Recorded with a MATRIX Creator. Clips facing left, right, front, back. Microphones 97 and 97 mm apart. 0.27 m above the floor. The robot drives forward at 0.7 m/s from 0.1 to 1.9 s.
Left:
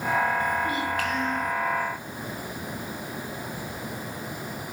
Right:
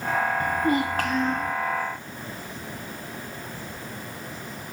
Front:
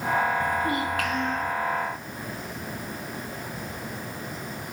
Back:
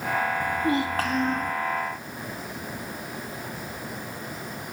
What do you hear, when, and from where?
0.4 s a child speaking: 105° right, 1.0 m; by 1.5 s 145° right, 1.4 m